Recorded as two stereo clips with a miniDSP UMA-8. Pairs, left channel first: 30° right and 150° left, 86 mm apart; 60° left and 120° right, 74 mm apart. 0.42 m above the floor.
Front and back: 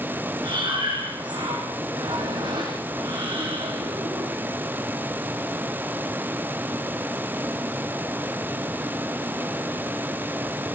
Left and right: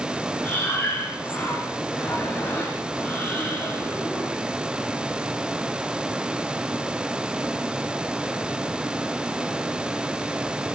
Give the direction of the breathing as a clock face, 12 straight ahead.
8 o'clock.